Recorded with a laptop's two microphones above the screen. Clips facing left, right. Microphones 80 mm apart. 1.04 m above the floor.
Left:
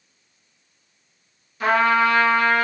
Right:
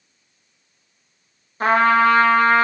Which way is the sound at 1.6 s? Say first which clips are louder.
Right 3 dB; 40° right (ahead or behind).